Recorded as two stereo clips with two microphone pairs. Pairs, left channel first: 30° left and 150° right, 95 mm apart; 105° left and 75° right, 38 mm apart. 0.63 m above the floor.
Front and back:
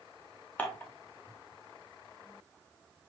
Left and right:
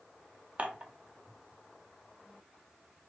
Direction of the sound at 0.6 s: 35° right.